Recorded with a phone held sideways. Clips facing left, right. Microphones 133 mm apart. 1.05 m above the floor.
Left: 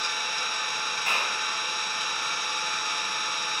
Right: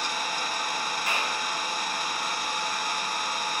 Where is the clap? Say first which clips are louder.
Left 1 dB; 60° left (ahead or behind), 4.5 m.